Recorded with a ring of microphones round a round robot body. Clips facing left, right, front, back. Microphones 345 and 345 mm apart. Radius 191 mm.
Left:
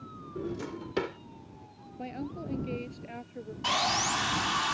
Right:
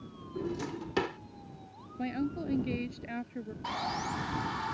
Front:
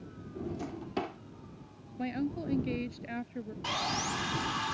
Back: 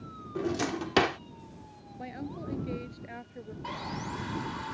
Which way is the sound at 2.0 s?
40° right.